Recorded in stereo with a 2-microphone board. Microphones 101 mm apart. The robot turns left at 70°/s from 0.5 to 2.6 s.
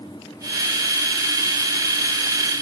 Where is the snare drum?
I don't hear a snare drum.